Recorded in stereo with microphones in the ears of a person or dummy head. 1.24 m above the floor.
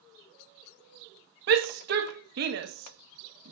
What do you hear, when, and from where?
1.5 s a shout: 60° right (ahead or behind), 1.7 m